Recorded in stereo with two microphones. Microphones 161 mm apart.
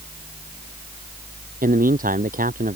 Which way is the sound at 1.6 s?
60° right (ahead or behind).